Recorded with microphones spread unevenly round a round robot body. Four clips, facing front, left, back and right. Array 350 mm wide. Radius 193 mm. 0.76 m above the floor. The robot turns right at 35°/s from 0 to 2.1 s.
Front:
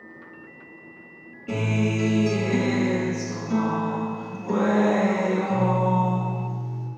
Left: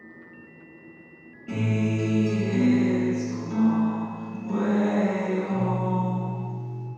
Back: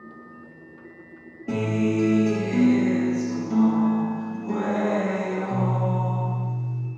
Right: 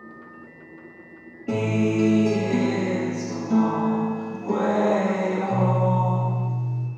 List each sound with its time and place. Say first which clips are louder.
1.5 s a guitar: right 4 dB, back 2 dB; 115° right, 3 m; by 6.9 s 90° right, 3 m